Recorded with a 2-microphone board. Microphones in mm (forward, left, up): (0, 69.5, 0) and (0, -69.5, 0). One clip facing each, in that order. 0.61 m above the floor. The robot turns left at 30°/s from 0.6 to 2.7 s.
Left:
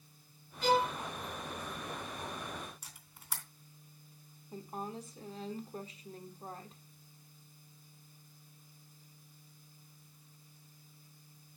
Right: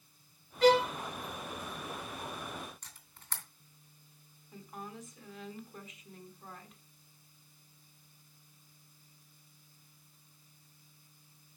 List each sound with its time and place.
0.6 s a violin: 85° right, 1.4 m
2.8 s a camera shutter: 10° left (ahead or behind), 2.5 m
4.5 s a woman speaking: 30° left (ahead or behind), 1.4 m